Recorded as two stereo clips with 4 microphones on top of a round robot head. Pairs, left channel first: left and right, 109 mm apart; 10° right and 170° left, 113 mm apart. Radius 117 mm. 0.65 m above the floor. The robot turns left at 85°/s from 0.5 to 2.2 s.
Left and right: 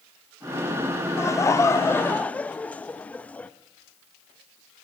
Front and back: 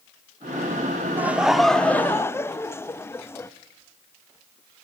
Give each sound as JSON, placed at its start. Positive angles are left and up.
{"t": 1.2, "sound": "laughter", "azimuth_deg": 120, "distance_m": 0.6}